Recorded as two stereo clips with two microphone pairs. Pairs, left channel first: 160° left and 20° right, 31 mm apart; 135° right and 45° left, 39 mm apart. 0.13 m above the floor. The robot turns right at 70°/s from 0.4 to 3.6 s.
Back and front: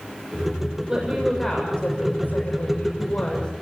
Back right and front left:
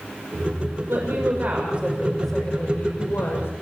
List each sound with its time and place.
0.9 s a woman speaking: 45° left, 6.5 m; by 3.5 s 130° right, 6.5 m